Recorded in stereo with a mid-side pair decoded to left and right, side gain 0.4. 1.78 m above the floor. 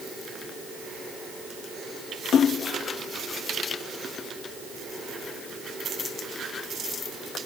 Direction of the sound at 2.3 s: 70° left.